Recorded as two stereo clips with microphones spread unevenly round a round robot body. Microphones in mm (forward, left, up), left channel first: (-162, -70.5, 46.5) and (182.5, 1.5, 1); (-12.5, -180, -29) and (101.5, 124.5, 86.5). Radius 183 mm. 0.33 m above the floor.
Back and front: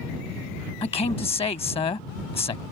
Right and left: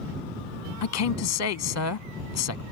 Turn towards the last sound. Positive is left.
turn(degrees=-90)